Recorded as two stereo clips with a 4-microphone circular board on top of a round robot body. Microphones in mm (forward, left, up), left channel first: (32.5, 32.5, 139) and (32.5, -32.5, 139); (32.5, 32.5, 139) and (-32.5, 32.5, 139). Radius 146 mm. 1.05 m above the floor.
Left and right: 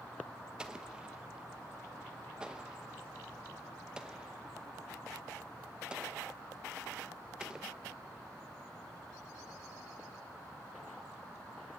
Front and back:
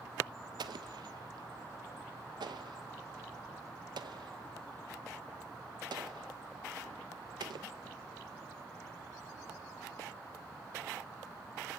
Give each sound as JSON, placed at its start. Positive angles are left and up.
{"t": 0.6, "sound": "an explosion", "azimuth_deg": -170, "distance_m": 0.7}